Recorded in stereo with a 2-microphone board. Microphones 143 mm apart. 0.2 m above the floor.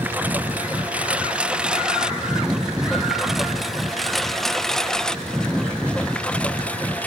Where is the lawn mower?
15° right (ahead or behind); by 7.1 s 10° left (ahead or behind).